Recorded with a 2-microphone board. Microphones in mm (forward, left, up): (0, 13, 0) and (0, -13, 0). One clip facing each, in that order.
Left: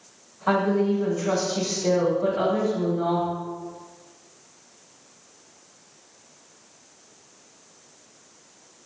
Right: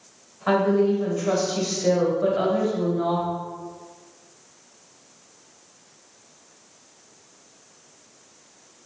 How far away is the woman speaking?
About 1.5 m.